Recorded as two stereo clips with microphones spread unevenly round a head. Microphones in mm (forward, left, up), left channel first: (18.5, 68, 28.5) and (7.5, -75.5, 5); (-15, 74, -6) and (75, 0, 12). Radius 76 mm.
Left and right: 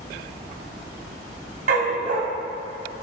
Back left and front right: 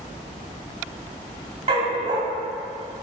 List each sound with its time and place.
1.7 s a dog barking: 70° right, 2.0 m